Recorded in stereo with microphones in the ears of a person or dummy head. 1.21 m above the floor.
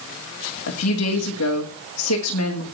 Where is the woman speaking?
85° left, 2 m.